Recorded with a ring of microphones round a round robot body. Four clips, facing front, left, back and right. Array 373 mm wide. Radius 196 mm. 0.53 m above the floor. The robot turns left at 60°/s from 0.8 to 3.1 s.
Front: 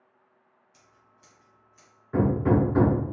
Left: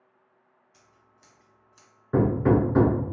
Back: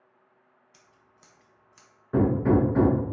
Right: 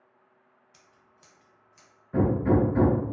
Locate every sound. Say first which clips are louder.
0.7 s scissors: left 1 dB, front 1 dB; 140° right, 1.0 m; by 1.9 s 155° left, 1.0 m
2.1 s hammering: left 2 dB, back 1 dB; 105° left, 0.6 m; by 3.0 s 55° left, 0.6 m